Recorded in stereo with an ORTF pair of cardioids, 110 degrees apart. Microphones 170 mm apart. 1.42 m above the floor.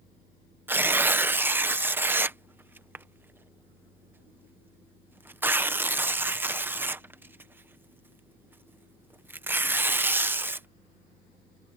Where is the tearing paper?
15° right.